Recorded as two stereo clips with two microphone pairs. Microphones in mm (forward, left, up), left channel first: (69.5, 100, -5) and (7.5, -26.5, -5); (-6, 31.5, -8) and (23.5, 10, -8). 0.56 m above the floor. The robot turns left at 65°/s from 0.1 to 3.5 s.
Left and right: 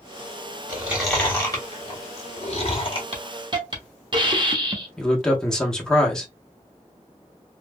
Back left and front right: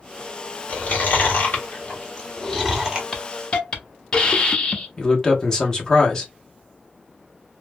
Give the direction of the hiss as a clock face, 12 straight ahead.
5 o'clock.